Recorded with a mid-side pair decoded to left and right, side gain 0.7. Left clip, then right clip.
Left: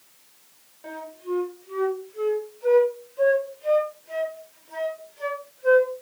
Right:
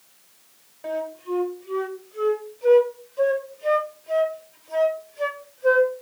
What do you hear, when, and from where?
0.8 s a flute: 20° right, 1.6 m